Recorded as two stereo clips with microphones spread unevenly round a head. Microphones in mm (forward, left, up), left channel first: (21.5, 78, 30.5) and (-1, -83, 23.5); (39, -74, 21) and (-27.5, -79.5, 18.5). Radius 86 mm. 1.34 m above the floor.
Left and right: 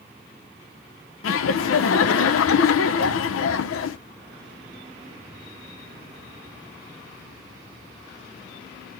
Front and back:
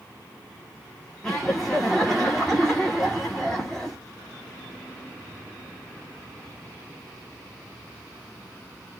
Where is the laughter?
90° left, 0.6 m.